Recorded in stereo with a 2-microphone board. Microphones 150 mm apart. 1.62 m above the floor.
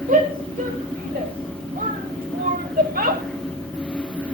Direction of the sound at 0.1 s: 65° right (ahead or behind).